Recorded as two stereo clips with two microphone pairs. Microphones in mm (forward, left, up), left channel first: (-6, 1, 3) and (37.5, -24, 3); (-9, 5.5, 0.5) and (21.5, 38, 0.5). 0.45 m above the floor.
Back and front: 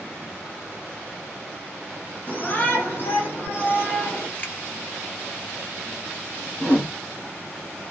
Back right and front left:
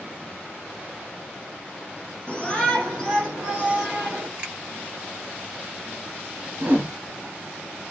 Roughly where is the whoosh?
Left.